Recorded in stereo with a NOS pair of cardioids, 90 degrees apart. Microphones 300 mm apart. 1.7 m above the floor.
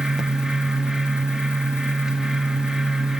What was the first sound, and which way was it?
A fan, straight ahead.